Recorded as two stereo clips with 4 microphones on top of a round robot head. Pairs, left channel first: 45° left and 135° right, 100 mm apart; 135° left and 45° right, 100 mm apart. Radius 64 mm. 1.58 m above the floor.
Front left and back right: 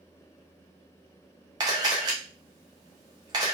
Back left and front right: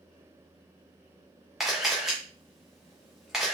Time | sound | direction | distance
1.6 | a camera shutter | 130° right | 0.6 m